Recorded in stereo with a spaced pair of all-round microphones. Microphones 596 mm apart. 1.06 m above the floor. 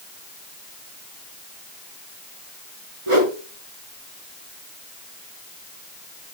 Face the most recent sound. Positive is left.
turn(degrees=-55)  # may be behind; listen again after turning